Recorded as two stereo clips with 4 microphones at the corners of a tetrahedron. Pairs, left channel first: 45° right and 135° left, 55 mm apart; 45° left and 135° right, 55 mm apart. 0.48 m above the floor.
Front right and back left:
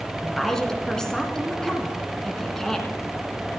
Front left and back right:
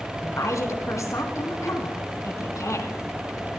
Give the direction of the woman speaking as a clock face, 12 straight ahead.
11 o'clock.